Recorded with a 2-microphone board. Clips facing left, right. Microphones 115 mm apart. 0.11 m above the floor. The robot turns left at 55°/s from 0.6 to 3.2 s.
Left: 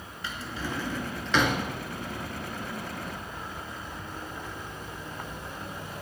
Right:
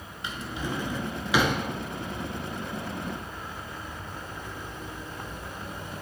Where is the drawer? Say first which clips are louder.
Right 2 dB; 20° right (ahead or behind), 0.9 m; by 1.6 s 5° right (ahead or behind), 0.9 m.